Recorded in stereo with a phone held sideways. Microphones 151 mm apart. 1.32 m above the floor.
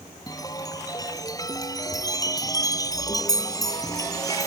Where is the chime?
25° left (ahead or behind).